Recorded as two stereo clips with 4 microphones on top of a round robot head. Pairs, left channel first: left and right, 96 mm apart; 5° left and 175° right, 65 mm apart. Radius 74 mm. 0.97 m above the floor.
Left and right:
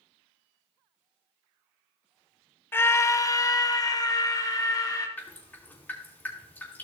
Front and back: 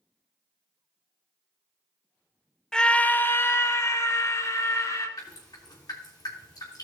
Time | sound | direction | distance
2.7 | a scream | 70° left | 0.7 m
5.2 | dripping | 20° left | 3.5 m